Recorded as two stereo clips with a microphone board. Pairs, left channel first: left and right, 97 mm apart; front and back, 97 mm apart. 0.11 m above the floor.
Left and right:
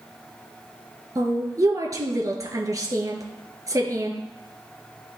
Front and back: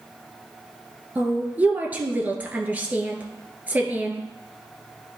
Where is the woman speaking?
115° right, 1.5 m.